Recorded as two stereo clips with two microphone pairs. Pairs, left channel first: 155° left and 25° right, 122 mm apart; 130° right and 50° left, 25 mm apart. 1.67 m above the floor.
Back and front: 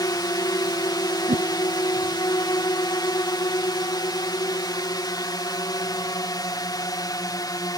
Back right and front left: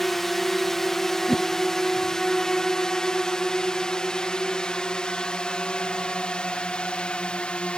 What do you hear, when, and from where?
0.0 s a drone: 160° left; by 7.8 s 155° right
1.3 s a whoosh: 35° right